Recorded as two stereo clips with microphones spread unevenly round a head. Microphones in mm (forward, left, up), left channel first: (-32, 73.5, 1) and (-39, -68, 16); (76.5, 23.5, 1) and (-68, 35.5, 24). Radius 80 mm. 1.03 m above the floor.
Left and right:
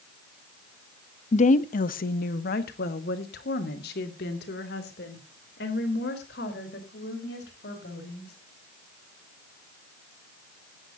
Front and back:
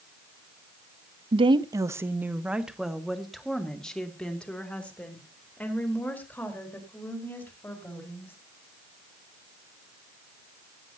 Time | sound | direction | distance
1.3 | a woman speaking | 120° left | 0.8 m